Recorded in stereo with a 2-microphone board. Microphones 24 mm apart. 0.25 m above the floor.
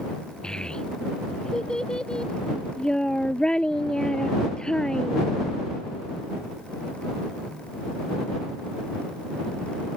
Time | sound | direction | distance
0.4 | a child speaking | 35° left (ahead or behind) | ?